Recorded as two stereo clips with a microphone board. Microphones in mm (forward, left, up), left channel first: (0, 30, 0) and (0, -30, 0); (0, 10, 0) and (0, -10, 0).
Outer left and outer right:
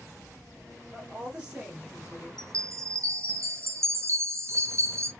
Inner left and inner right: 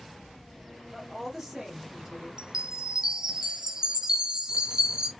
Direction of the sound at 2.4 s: 50° right (ahead or behind).